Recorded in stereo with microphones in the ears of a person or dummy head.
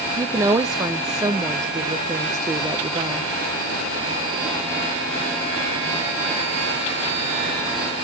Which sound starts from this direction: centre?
A woman speaking, at 0.2 s.